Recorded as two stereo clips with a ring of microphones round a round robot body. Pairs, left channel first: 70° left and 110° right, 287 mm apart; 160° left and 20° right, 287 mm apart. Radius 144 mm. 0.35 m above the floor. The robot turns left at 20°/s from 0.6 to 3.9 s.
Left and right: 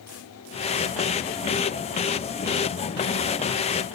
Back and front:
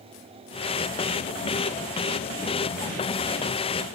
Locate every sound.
Only background noise.